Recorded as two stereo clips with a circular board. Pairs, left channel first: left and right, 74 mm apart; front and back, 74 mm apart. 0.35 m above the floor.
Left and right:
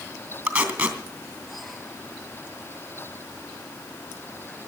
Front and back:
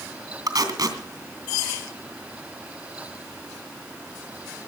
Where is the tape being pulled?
160° right, 2.5 m.